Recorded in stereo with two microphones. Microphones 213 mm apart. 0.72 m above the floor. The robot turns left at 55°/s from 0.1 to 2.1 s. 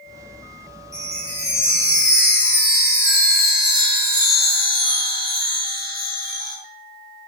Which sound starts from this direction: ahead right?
A chime, at 0.9 s.